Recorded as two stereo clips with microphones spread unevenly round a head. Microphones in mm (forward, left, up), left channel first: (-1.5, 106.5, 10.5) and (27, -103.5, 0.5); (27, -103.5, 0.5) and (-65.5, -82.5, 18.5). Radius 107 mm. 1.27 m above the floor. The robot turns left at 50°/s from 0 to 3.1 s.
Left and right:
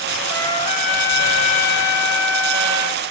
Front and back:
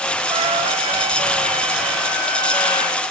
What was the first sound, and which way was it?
A trumpet, straight behind.